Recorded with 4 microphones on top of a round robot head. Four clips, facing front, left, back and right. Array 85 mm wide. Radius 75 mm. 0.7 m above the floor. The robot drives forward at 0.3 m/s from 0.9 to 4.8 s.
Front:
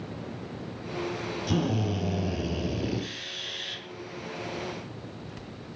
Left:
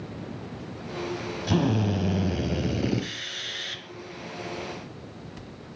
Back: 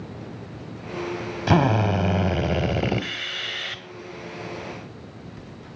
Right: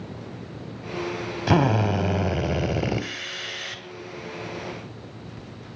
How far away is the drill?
About 1.1 m.